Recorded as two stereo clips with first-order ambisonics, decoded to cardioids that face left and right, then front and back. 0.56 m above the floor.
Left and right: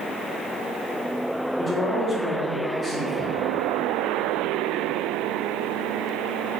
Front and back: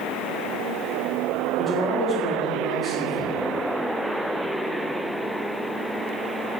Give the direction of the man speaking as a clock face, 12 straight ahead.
9 o'clock.